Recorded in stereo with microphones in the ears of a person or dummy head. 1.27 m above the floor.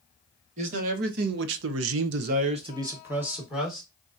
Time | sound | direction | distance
0.6 | a man speaking | 45° right (ahead or behind) | 1.5 m